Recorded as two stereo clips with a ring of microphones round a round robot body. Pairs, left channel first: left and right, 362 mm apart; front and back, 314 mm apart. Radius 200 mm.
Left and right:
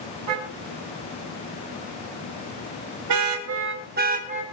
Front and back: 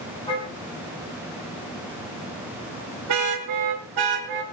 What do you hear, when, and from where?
0.3 s a car horn: 75° right, 4.5 m; by 4.4 s 165° right, 3 m